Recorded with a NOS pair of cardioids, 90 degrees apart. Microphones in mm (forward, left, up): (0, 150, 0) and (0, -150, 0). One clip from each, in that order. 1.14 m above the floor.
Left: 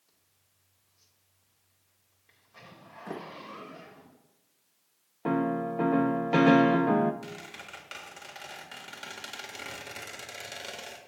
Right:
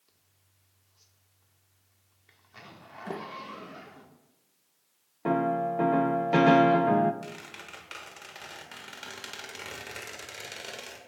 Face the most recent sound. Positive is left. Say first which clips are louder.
# even
turn(degrees=-5)